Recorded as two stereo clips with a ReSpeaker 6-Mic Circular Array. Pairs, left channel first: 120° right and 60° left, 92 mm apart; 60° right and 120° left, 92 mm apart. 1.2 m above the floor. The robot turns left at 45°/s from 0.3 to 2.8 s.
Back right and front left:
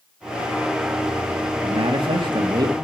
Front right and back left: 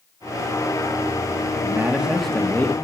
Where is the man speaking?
60° left, 2 m; by 2.8 s 5° left, 2 m.